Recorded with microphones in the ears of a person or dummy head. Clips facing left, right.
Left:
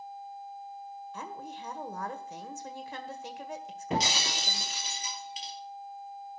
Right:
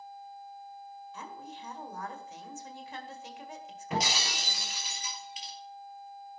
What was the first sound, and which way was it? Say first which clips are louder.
A woman speaking: left 3 dB; 55° left (ahead or behind).